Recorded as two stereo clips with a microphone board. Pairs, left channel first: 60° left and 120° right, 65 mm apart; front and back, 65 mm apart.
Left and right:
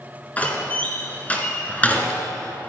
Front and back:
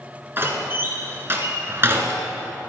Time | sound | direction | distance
0.4 | a door slam | 125° left | 2.5 m